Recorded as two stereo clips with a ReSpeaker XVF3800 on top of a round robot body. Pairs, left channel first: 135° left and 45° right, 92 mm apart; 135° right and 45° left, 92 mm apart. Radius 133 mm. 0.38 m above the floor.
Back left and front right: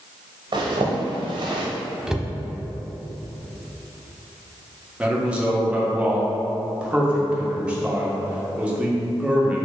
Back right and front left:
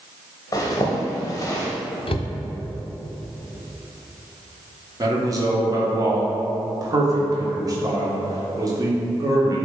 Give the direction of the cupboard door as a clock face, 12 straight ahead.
4 o'clock.